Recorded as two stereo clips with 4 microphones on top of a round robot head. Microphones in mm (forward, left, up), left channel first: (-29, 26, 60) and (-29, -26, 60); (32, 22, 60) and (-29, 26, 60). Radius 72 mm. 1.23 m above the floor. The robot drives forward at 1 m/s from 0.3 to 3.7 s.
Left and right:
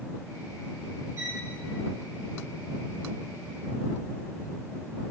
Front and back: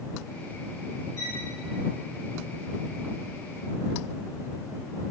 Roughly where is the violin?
Ahead right.